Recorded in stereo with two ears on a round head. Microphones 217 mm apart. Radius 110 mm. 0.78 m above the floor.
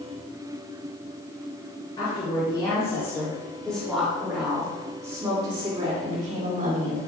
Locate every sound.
2.0 s a woman speaking: 20° left (ahead or behind), 3 m; by 7.0 s 40° right (ahead or behind), 2.5 m